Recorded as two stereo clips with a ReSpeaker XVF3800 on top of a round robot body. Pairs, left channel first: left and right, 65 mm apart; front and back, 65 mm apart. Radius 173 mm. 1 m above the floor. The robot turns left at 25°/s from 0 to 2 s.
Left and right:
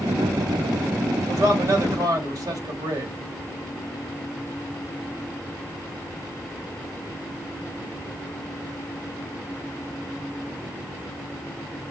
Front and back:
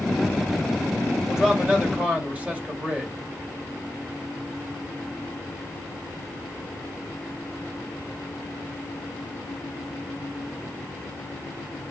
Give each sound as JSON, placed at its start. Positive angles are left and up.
{"t": 1.3, "sound": "a man speaking", "azimuth_deg": -95, "distance_m": 2.0}